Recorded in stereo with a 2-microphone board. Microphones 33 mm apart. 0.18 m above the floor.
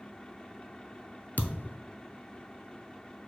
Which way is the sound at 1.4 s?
65° left (ahead or behind).